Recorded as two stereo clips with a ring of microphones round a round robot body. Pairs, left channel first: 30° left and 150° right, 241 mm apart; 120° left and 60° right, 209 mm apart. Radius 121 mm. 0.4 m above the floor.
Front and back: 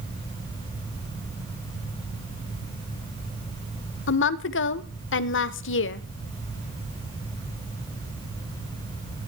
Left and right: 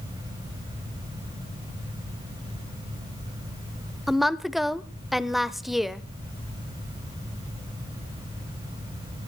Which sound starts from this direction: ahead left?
A woman speaking, at 4.1 s.